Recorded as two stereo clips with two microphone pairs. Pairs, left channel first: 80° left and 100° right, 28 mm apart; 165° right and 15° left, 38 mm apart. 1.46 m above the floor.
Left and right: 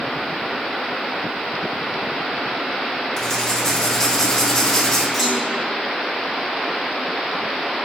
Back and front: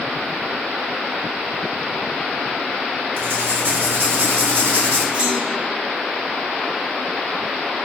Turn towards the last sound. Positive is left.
turn(degrees=-30)